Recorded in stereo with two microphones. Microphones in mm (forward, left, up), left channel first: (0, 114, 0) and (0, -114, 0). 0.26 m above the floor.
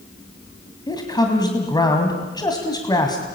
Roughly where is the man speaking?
Centre.